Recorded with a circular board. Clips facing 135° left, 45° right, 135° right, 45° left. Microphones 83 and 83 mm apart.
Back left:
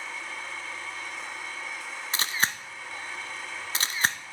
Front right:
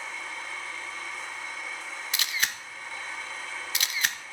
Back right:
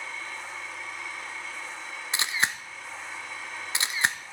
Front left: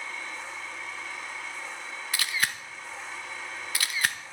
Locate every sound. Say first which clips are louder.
2.1 s a camera shutter: back left 3 dB, back right 2 dB; 170° left, 1.0 m